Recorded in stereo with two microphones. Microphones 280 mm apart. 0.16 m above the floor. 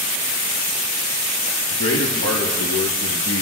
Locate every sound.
1.7 s a man speaking: 60° left (ahead or behind), 3.5 m